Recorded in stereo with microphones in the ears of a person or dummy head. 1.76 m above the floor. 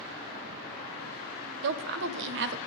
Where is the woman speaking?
65° right (ahead or behind), 0.5 m.